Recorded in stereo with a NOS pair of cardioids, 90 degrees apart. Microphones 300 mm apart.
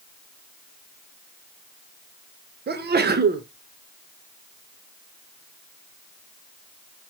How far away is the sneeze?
About 1.2 m.